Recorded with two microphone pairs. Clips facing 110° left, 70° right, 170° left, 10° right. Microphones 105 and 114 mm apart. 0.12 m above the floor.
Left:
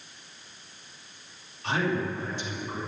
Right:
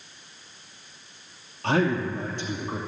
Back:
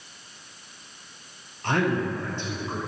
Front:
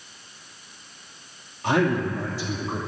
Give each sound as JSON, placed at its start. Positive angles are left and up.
{"t": 1.6, "sound": "a man speaking", "azimuth_deg": -90, "distance_m": 2.5}